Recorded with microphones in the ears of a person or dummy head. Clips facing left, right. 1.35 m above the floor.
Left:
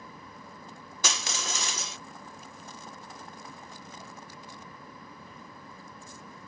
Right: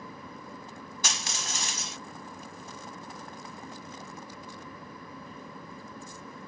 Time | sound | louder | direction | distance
1.0 | crushing | left 4 dB | 70° left (ahead or behind) | ?